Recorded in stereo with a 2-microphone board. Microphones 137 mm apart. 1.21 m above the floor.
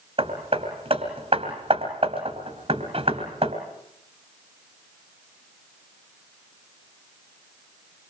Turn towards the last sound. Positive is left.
turn(degrees=-45)  # may be behind; listen again after turning